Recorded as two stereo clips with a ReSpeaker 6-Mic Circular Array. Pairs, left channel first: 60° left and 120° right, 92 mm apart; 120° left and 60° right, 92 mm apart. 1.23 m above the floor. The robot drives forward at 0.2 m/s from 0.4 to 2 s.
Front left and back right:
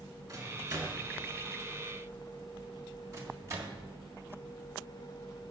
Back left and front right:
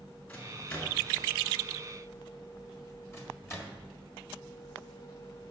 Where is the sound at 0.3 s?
175° right, 2.5 m.